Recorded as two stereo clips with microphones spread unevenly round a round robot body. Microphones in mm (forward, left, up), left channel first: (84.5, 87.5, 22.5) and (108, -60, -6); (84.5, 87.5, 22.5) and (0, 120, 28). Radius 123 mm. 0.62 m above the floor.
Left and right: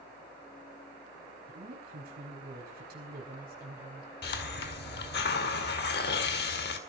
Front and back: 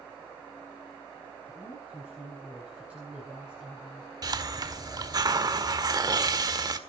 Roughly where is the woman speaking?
Behind right.